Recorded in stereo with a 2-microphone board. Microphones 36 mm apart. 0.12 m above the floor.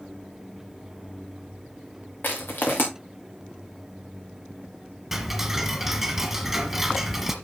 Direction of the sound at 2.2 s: 60° left (ahead or behind).